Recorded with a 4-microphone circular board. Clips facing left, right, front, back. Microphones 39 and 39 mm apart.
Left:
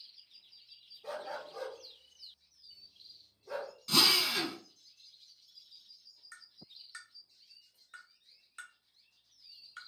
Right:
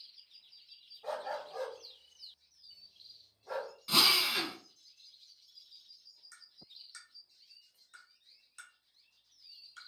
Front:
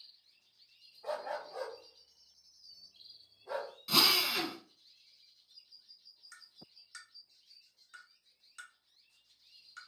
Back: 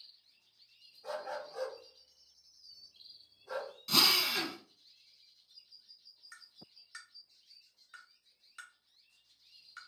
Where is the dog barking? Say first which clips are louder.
Right 2 dB, front 2 dB; 55° right, 1.5 m.